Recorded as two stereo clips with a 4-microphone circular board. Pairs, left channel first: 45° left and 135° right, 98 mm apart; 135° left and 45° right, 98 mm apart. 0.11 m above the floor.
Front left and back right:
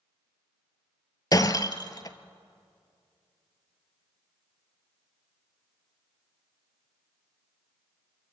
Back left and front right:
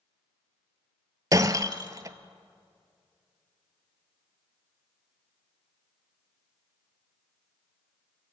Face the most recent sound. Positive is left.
turn(degrees=0)